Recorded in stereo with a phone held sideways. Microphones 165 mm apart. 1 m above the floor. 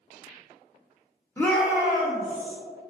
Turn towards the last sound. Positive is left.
turn(degrees=-45)  # may be behind; listen again after turning